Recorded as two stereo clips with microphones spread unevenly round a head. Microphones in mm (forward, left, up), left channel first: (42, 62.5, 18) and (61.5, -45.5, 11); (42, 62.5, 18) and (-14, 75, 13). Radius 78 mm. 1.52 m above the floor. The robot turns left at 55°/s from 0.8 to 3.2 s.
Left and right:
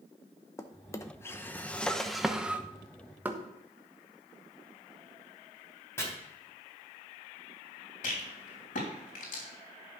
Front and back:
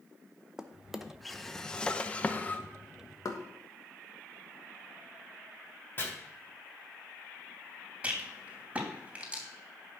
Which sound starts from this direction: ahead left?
Chopping, at 6.0 s.